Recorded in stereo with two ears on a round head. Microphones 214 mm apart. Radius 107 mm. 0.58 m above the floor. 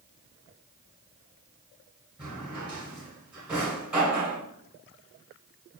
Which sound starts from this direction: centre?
A drawer, at 2.2 s.